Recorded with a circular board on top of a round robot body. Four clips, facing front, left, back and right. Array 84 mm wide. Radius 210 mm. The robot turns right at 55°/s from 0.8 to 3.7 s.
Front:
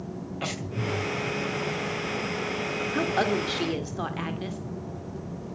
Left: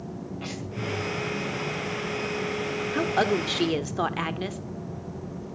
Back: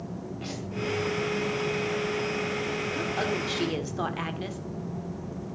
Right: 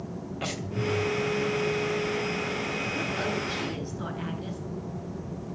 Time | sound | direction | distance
0.4 | breathing | 35° right | 2.5 m
2.9 | a woman speaking | 55° left | 1.9 m